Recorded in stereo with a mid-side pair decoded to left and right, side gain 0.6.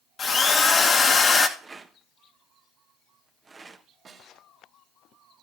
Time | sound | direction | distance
0.2 | a drill | 35° left | 1.5 m
1.6 | a rattle | 25° right | 1.2 m
4.0 | a snare drum | 40° right | 2.5 m